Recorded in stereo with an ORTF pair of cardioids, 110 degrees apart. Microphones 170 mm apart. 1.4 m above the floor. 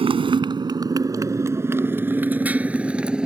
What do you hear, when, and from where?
0.0 s a motorcycle: 30° right; by 3.3 s 5° right